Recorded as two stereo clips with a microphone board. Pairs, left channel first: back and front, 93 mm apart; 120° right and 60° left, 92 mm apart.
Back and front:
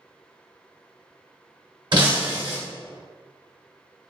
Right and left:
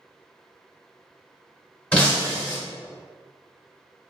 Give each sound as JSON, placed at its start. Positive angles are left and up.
{"t": 1.9, "sound": "breaking glass", "azimuth_deg": -40, "distance_m": 0.7}